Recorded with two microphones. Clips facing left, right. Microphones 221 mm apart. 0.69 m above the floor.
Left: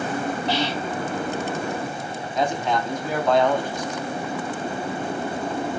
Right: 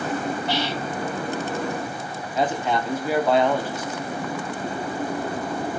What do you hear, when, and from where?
0.5 s whispering: 55° right (ahead or behind), 3.5 m
2.4 s a man speaking: 5° right (ahead or behind), 1.1 m